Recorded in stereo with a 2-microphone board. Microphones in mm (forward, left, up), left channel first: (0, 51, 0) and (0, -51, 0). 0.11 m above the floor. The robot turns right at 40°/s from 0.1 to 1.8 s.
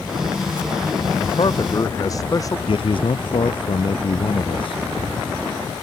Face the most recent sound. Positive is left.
turn(degrees=60)  # may be behind; listen again after turning